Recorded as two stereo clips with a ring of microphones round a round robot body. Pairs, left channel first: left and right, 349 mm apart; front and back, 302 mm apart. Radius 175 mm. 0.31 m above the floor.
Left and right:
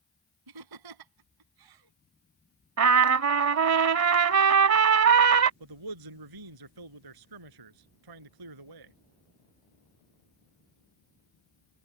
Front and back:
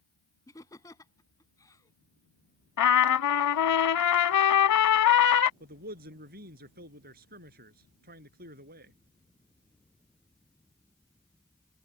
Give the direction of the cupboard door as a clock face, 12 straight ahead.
No cupboard door in this recording.